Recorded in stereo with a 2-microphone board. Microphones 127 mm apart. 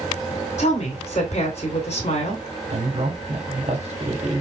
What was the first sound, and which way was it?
A woman speaking, 65° left (ahead or behind).